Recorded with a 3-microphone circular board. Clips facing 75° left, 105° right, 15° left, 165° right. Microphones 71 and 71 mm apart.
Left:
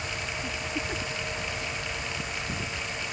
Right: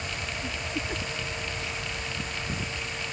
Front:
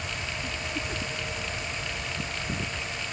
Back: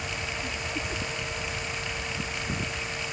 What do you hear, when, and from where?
Only background noise.